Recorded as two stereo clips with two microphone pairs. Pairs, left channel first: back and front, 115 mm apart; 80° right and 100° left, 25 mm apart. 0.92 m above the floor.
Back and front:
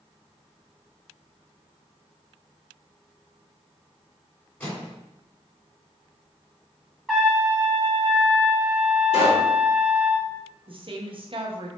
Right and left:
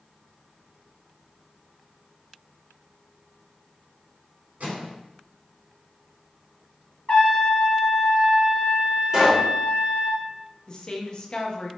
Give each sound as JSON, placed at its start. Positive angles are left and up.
{"t": 4.6, "sound": "a microwave", "azimuth_deg": 105, "distance_m": 2.5}
{"t": 7.1, "sound": "a trumpet", "azimuth_deg": -95, "distance_m": 1.6}
{"t": 9.1, "sound": "a pop", "azimuth_deg": 170, "distance_m": 2.5}
{"t": 10.7, "sound": "a woman speaking", "azimuth_deg": -30, "distance_m": 0.9}